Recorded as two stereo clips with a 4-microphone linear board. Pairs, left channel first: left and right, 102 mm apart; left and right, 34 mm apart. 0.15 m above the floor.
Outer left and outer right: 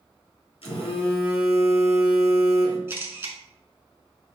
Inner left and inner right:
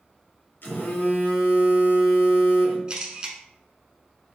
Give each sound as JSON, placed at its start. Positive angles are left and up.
{"t": 0.6, "sound": "a phone buzzing", "side_deg": 75, "distance_m": 1.1}
{"t": 2.9, "sound": "a camera shutter", "side_deg": -25, "distance_m": 0.8}